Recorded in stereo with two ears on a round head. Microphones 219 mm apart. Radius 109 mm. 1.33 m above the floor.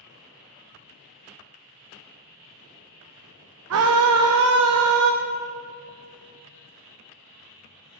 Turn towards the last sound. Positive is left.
turn(degrees=-60)  # may be behind; listen again after turning